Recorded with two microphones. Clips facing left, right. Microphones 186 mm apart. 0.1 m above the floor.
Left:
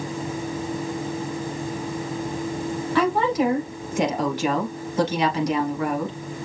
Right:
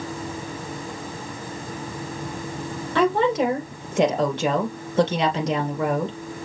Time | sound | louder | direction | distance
3.0 | a woman speaking | right 2 dB | 25° right (ahead or behind) | 2.5 m